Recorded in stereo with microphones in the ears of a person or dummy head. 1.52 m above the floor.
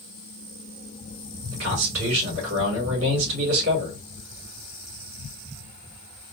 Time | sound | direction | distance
1.5 | a man speaking | 80° right | 3.5 m